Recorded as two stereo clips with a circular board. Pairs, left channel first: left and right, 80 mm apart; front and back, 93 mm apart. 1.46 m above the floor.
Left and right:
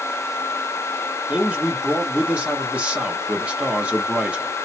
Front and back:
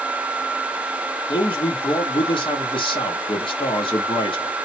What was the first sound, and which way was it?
A man speaking, 15° right.